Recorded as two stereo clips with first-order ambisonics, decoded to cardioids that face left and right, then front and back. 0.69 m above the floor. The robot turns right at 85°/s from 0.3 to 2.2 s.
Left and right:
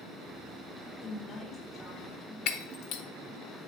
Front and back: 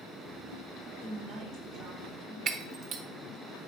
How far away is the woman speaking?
About 1.3 m.